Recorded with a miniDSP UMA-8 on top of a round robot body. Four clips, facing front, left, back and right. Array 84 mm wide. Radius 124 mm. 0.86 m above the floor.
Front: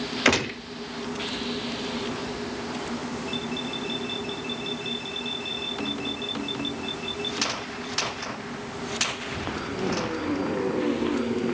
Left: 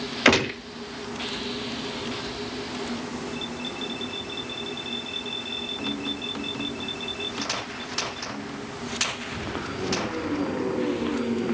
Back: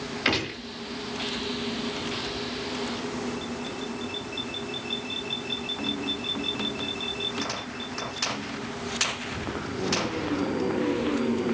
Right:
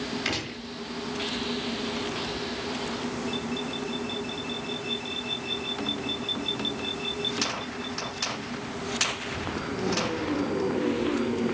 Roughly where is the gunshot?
Left.